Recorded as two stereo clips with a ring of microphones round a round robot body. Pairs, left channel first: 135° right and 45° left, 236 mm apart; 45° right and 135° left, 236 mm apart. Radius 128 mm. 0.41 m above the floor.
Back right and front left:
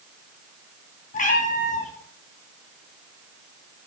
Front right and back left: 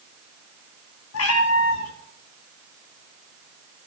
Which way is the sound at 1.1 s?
75° right.